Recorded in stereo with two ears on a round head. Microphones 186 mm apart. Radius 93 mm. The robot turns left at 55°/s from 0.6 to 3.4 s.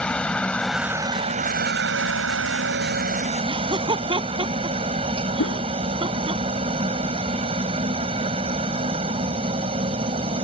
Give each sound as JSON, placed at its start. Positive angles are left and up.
{"t": 0.0, "sound": "a helicopter", "azimuth_deg": 5}
{"t": 3.4, "sound": "laughter", "side_deg": -25}
{"t": 5.4, "sound": "a whoosh", "side_deg": 75}